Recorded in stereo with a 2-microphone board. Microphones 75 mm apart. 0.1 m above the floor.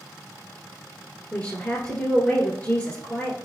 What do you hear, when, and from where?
1.3 s a woman speaking: 15° left (ahead or behind), 1.5 m